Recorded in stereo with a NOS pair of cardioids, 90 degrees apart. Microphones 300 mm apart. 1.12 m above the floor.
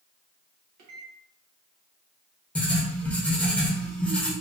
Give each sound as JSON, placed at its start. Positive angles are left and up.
{"t": 0.8, "sound": "a microwave", "azimuth_deg": -70, "distance_m": 0.9}
{"t": 2.5, "sound": "writing", "azimuth_deg": 5, "distance_m": 0.9}